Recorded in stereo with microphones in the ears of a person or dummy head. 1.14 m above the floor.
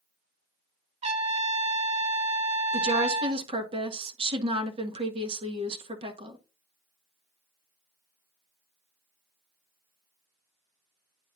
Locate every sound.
1.0 s a trumpet: 30° right (ahead or behind), 0.7 m
2.7 s a woman speaking: 25° right (ahead or behind), 1.4 m